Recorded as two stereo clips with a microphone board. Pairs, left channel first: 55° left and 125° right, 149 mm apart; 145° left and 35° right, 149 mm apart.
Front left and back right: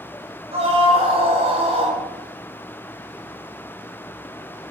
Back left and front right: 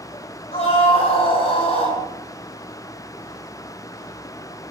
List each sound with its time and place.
0.5 s a scream: 170° right, 8 m